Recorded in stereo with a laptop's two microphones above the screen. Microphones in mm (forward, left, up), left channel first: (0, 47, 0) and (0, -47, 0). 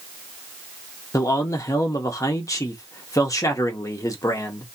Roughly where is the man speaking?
Left.